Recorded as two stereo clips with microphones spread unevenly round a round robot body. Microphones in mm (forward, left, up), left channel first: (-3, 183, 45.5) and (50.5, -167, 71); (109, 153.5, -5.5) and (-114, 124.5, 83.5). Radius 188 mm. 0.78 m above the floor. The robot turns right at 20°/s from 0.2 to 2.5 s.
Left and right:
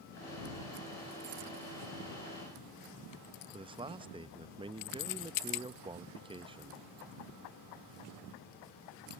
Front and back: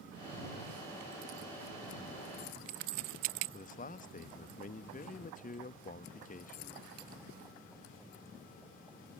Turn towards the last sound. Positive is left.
turn(degrees=-5)